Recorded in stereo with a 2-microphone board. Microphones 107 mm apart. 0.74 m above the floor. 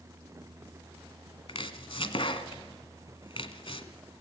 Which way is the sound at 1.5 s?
55° left (ahead or behind).